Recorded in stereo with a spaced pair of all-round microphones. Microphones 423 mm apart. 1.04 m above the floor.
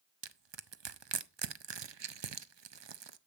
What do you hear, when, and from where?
0.2 s crushing: 75° right (ahead or behind), 0.6 m